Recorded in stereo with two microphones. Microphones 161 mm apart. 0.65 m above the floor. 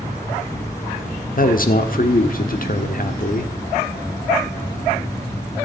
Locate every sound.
1.4 s a man speaking: 60° left (ahead or behind), 1.2 m